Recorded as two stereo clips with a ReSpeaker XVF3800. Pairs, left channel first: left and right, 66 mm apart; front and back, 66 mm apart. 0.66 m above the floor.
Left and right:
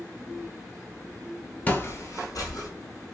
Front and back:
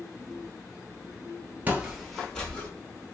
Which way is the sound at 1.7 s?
140° left.